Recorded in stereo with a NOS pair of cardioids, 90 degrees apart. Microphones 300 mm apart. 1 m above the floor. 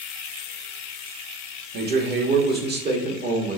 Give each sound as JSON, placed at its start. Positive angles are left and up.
{"t": 1.7, "sound": "a man speaking", "azimuth_deg": -35, "distance_m": 1.6}